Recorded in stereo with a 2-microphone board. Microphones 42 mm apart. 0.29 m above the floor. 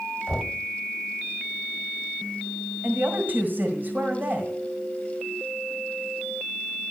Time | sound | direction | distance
0.3 | knocking | centre (ahead or behind) | 1.5 m
2.8 | a woman speaking | 45° right (ahead or behind) | 1.8 m